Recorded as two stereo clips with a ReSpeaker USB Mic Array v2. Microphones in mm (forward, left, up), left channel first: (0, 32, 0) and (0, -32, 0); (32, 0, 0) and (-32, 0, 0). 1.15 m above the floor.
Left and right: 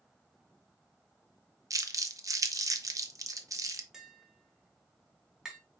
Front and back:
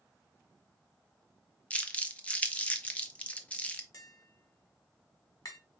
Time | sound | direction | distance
1.7 | crumpling | 70° right | 0.6 m
3.9 | tapping | 10° right | 1.6 m